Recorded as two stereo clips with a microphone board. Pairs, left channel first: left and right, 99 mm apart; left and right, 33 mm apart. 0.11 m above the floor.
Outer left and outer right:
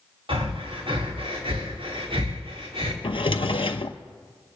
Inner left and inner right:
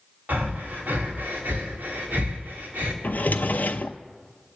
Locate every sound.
0.3 s breathing: 60° right (ahead or behind), 3 m
3.0 s a drawer: 65° left (ahead or behind), 0.5 m